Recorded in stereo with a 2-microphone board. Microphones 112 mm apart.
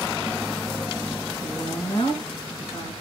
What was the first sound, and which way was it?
A woman speaking, 45° left (ahead or behind).